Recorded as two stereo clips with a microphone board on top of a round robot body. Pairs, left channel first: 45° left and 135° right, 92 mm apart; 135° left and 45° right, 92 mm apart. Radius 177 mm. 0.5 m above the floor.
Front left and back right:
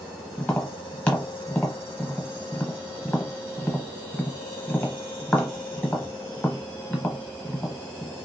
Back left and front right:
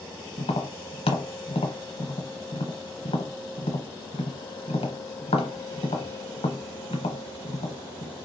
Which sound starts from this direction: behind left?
Tapping, at 0.4 s.